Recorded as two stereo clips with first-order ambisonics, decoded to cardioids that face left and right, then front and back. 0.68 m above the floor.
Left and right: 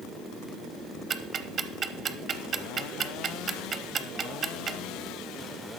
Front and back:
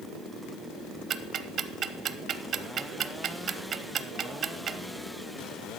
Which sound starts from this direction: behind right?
Ticking, at 1.1 s.